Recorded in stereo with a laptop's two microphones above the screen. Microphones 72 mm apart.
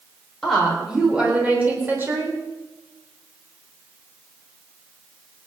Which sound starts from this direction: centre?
A woman speaking, at 0.4 s.